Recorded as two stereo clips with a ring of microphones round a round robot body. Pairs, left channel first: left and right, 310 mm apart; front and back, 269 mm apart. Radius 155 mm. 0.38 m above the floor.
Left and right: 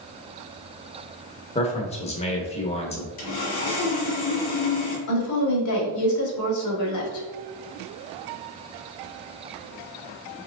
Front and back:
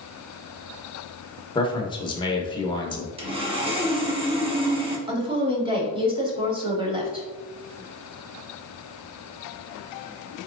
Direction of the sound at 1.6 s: 50° left.